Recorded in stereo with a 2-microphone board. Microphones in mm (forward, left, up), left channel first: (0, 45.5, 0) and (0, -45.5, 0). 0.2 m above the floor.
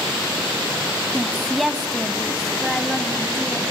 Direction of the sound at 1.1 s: Centre (ahead or behind).